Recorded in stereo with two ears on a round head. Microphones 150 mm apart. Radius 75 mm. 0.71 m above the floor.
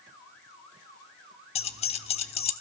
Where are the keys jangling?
35° left (ahead or behind), 1.0 m.